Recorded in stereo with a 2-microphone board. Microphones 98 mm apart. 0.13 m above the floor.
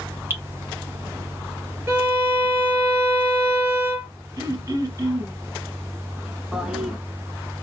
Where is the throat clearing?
35° right (ahead or behind), 1.0 m.